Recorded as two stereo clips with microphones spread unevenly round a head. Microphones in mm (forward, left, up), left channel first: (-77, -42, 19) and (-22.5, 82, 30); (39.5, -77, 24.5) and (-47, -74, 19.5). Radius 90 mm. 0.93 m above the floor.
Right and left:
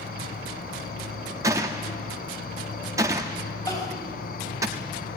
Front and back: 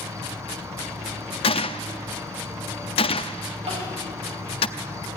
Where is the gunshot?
10° right, 0.8 m.